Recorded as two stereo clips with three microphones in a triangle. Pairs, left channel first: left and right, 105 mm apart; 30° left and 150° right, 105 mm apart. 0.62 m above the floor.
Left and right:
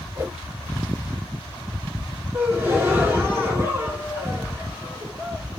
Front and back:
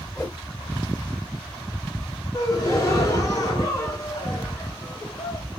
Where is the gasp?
25° right, 2 m.